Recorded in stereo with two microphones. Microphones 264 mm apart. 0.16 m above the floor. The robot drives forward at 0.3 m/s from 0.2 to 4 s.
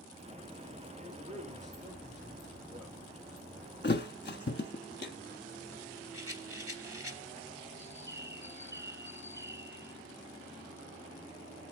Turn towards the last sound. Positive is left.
turn(degrees=-40)  # may be behind; listen again after turning